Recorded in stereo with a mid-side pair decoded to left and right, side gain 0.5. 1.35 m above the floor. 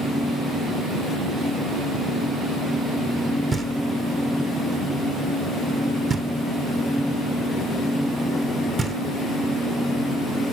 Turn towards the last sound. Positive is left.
turn(degrees=-35)